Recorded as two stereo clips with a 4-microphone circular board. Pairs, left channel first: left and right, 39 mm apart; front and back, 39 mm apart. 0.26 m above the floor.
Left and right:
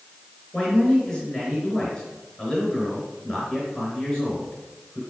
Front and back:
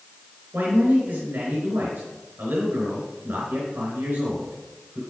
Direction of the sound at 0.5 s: 165° left.